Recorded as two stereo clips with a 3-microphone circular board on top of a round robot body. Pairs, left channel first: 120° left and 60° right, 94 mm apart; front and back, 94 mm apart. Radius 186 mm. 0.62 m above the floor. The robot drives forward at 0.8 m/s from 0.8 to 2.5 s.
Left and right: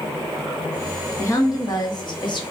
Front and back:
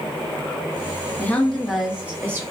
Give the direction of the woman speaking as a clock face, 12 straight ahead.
10 o'clock.